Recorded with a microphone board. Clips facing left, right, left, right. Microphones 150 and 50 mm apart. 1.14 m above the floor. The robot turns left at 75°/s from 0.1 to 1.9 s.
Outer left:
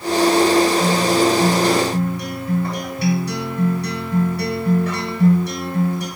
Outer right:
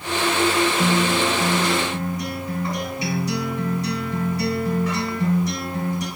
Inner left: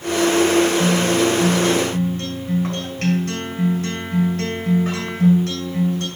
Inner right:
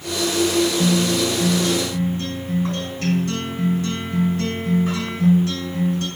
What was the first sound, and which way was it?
A guitar, 165° right.